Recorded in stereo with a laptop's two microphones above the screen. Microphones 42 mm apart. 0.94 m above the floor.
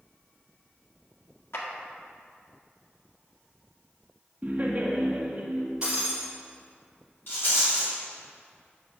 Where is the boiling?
No boiling in this recording.